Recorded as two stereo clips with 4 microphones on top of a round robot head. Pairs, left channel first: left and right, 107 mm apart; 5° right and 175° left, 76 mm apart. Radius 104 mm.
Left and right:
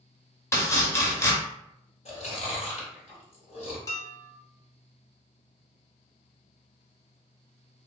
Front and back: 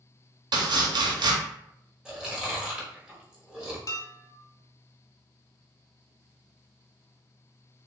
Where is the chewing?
95° left, 1.2 m.